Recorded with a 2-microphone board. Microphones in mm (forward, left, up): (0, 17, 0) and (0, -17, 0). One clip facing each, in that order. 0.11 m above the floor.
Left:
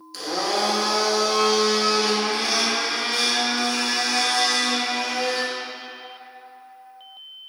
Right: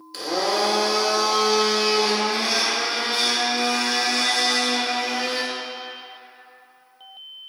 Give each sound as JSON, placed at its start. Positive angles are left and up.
{"t": 0.1, "sound": "a blender", "side_deg": -15, "distance_m": 1.1}